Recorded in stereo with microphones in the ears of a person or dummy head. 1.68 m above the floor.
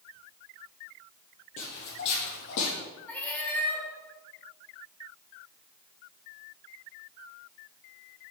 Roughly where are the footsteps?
Left.